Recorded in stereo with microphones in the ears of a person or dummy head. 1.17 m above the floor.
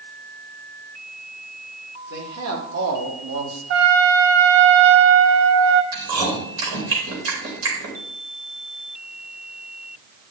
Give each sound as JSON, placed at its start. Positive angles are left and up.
{"t": 2.1, "sound": "a man speaking", "side_deg": -90, "distance_m": 2.5}
{"t": 3.7, "sound": "a trumpet", "side_deg": -50, "distance_m": 0.7}
{"t": 5.9, "sound": "chewing", "side_deg": -80, "distance_m": 3.5}